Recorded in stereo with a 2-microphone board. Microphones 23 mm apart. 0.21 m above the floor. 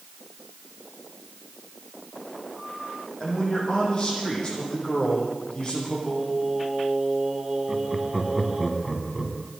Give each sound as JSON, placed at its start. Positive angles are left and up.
{"t": 3.2, "sound": "a man speaking", "side_deg": 35, "distance_m": 7.5}
{"t": 6.1, "sound": "singing", "side_deg": -15, "distance_m": 5.0}
{"t": 7.7, "sound": "laughter", "side_deg": -10, "distance_m": 1.9}